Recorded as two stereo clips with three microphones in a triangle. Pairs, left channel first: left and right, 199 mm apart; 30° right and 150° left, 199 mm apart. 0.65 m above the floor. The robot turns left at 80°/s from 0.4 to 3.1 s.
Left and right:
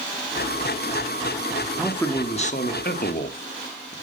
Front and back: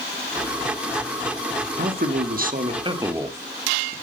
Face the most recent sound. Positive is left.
turn(degrees=75)